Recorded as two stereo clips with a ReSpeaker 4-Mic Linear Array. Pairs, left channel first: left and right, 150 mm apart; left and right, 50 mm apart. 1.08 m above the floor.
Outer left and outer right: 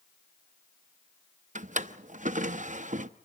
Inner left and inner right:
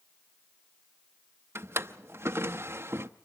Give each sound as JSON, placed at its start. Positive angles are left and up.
{"t": 1.6, "sound": "a drawer", "side_deg": -55, "distance_m": 0.6}